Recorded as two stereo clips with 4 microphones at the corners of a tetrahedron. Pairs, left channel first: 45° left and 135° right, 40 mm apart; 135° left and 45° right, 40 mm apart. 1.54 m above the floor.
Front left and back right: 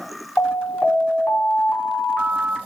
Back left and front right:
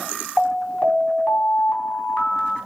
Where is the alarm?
80° left, 4 m.